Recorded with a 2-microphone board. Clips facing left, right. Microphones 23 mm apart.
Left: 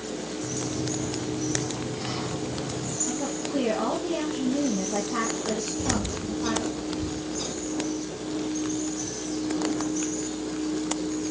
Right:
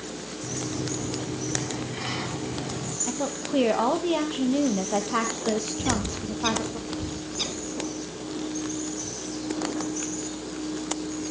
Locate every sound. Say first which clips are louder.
0.4 s a sliding door: right 1 dB; 35° right (ahead or behind), 2.5 m
3.1 s a woman speaking: right 2 dB; 50° right (ahead or behind), 3 m
5.8 s a bird: even; 55° right (ahead or behind), 1.5 m